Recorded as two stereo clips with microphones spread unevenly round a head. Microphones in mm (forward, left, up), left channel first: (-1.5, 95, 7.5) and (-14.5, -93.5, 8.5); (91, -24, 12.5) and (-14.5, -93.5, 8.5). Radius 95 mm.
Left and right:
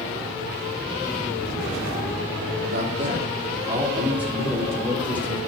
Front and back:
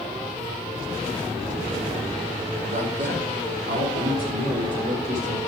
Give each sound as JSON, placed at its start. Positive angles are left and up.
{"t": 2.6, "sound": "a man speaking", "azimuth_deg": -135, "distance_m": 3.0}